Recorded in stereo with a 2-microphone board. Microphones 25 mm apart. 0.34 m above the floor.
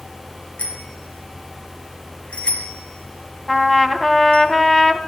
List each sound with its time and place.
0.6 s a bicycle bell: 65° left (ahead or behind), 7 m; by 4.5 s 40° left (ahead or behind), 5.5 m
3.5 s a trumpet: 10° left (ahead or behind), 2.5 m